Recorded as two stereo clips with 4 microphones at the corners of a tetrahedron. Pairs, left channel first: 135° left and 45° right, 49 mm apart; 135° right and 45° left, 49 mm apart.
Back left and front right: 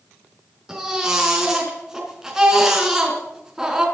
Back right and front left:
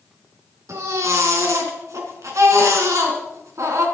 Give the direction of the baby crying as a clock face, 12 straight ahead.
11 o'clock.